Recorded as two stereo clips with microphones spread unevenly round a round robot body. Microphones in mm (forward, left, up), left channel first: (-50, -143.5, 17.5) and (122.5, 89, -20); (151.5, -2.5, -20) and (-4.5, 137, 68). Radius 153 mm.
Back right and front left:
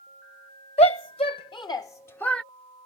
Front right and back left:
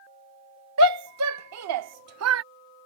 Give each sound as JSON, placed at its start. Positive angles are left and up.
{"t": 0.8, "sound": "a shout", "azimuth_deg": 160}